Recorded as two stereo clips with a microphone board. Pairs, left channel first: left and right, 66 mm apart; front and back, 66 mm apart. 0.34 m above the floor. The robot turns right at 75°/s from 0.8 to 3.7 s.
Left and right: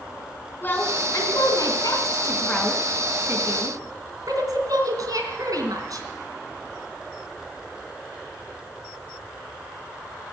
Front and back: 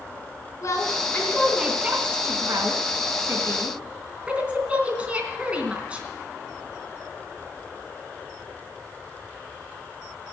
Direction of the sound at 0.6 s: 30° left.